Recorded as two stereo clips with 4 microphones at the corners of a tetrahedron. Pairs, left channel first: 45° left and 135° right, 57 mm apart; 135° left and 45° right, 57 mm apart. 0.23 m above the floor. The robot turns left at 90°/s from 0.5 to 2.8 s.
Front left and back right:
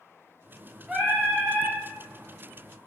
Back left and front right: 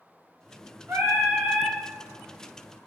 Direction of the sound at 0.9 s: 55° right.